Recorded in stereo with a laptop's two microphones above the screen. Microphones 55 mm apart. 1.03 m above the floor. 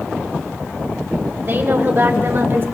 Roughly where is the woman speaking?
Right.